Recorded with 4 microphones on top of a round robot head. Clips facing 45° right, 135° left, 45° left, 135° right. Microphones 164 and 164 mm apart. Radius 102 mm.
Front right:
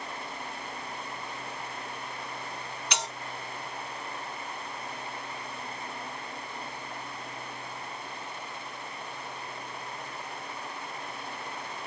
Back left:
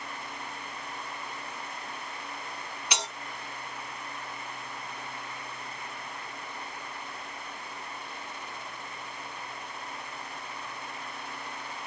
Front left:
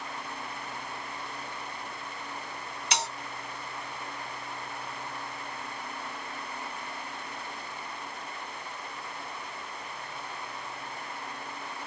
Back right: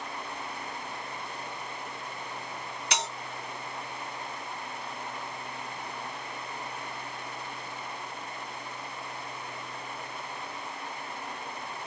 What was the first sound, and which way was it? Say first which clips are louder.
A bell: even, front left 1 dB; 150° right.